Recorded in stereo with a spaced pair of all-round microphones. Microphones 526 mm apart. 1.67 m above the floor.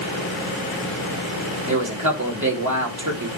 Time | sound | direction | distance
1.7 | a man speaking | 35° right (ahead or behind) | 3 m